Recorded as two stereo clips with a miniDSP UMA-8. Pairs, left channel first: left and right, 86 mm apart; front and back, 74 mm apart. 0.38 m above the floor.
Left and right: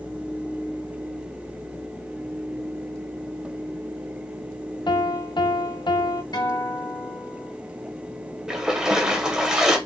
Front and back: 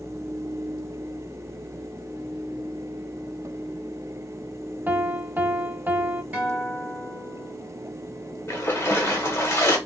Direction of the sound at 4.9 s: 115° left.